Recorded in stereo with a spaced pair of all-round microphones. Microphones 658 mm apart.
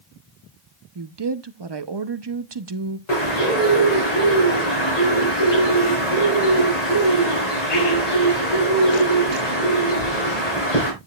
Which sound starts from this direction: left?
A bird, at 3.1 s.